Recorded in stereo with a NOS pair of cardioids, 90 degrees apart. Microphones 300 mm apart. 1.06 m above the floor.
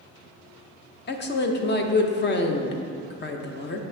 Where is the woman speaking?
35° left, 0.7 m.